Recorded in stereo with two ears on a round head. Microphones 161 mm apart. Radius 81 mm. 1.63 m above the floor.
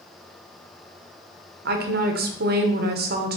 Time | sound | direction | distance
1.6 | a woman speaking | 55° right (ahead or behind) | 0.8 m